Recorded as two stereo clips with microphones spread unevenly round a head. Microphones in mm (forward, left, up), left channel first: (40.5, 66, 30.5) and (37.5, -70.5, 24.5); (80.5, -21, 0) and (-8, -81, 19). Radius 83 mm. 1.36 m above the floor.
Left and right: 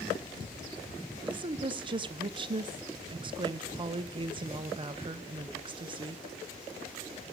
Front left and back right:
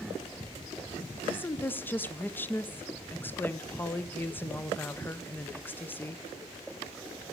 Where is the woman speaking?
40° right, 0.5 m.